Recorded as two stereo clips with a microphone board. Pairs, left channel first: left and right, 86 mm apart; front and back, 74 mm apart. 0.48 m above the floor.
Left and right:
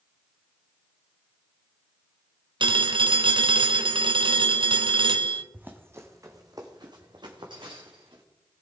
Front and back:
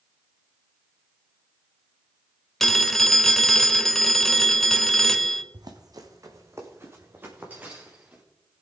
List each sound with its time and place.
2.6 s a phone ringing: 85° right, 1.0 m
5.5 s running footsteps: 160° right, 1.9 m; by 8.2 s 110° right, 3.5 m